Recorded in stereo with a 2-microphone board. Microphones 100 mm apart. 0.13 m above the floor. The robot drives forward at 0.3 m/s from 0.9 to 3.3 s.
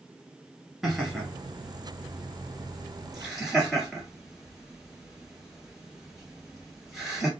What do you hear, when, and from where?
0.8 s laughter: 5° right (ahead or behind), 1.3 m